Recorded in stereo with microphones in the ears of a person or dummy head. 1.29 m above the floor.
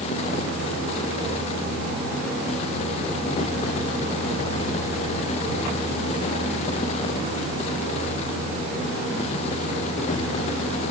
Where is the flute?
No flute in this recording.